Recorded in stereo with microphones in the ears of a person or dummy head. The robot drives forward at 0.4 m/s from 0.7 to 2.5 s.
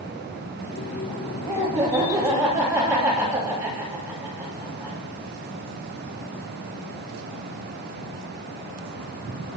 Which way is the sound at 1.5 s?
15° right (ahead or behind).